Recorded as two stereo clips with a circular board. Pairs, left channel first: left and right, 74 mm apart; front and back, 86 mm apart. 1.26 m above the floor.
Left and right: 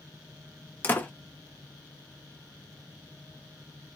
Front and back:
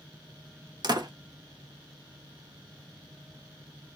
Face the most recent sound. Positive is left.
turn(degrees=150)